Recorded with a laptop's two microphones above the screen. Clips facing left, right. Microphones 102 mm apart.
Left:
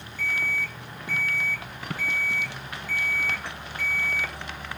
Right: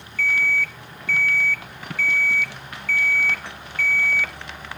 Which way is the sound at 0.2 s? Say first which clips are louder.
Right 6 dB; 20° left (ahead or behind).